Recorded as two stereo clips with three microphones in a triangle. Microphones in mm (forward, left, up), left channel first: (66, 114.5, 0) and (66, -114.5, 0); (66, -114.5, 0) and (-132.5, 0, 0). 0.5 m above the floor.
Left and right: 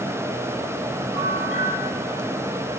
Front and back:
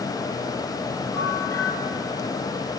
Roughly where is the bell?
Right.